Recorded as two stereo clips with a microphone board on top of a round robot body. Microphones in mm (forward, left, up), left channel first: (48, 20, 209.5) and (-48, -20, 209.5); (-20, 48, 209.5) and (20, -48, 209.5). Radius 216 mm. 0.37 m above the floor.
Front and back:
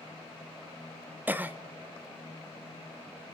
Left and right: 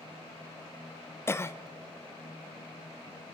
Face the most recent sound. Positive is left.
turn(degrees=150)